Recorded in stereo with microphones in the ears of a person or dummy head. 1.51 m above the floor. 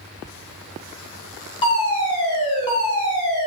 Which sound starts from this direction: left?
A fire alarm, at 1.6 s.